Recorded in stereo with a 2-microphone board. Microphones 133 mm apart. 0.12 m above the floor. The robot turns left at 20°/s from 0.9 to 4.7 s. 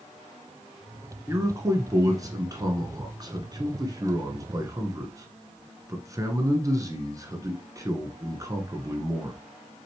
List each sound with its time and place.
1.3 s a man speaking: 20° right (ahead or behind), 1.1 m; by 9.4 s 25° right (ahead or behind), 1.1 m